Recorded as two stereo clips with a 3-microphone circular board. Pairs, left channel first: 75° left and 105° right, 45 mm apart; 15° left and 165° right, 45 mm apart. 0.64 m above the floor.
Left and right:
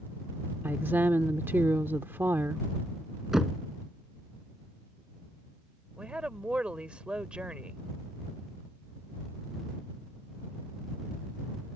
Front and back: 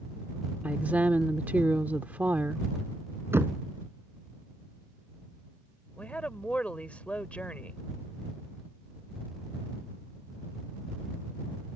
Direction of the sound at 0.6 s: 120° right.